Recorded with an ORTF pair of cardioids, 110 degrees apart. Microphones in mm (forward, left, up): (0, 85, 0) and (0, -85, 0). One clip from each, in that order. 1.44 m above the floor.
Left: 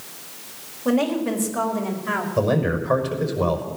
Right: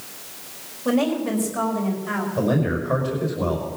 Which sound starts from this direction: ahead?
A woman speaking, at 0.8 s.